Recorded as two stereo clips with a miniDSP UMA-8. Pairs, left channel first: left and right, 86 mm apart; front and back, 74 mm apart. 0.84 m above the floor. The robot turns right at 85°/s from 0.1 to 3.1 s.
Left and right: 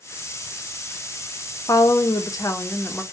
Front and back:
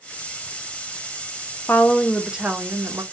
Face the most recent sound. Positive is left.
turn(degrees=170)